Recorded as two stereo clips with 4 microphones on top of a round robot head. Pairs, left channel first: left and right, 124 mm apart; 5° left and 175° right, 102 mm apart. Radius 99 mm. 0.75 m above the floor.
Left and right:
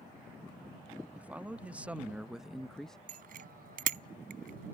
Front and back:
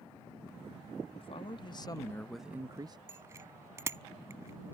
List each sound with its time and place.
1.1 s a man speaking: 10° right; by 3.0 s 175° left
3.1 s a bicycle bell: 105° right